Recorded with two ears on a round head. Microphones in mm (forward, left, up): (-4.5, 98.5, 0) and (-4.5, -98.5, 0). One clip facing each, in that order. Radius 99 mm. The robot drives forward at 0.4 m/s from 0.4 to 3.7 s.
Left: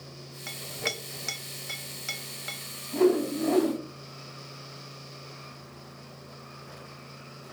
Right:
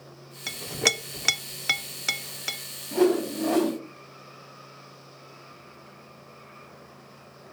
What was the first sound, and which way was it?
A clink, 50° right (ahead or behind).